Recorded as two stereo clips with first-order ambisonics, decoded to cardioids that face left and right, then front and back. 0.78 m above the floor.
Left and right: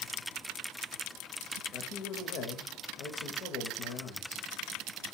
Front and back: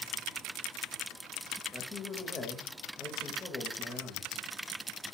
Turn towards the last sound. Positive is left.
turn(degrees=70)